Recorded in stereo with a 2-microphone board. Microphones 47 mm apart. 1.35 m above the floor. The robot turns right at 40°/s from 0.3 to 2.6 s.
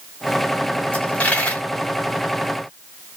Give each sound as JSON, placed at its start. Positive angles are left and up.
{"t": 0.9, "sound": "a dropped coin", "side_deg": 25, "distance_m": 1.3}